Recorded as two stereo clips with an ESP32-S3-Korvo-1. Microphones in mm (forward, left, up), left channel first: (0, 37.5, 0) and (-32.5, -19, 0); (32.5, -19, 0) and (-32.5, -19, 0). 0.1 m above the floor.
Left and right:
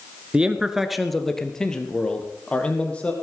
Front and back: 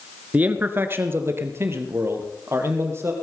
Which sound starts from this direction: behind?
A man speaking, at 0.3 s.